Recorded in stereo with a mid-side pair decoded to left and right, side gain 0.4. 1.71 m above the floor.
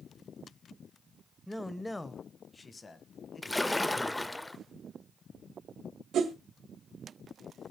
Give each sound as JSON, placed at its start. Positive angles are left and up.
{"t": 1.5, "sound": "a man speaking", "azimuth_deg": 0, "distance_m": 1.0}
{"t": 3.4, "sound": "a splash", "azimuth_deg": 10, "distance_m": 0.5}
{"t": 6.1, "sound": "a whoosh", "azimuth_deg": -70, "distance_m": 1.8}